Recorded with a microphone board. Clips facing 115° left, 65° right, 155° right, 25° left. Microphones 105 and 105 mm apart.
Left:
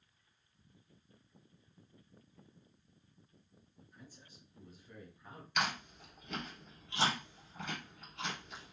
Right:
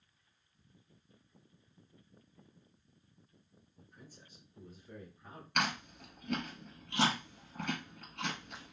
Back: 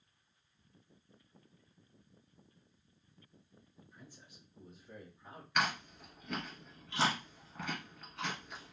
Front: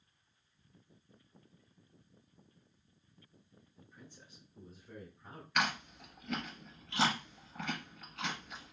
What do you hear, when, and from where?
3.8 s a man speaking: 50° right, 2 m; by 5.5 s 10° right, 2.5 m
5.5 s chewing: 70° right, 1.8 m